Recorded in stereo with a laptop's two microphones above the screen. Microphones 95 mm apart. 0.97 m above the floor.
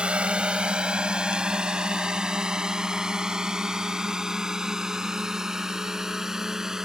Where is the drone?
10° right (ahead or behind); by 6.8 s 5° right (ahead or behind).